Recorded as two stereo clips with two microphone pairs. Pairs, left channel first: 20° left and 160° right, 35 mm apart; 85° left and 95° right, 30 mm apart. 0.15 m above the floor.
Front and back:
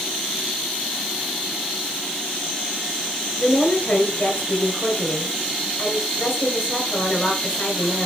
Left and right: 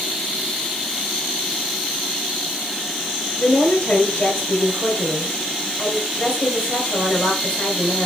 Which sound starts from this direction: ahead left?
A woman speaking, at 3.4 s.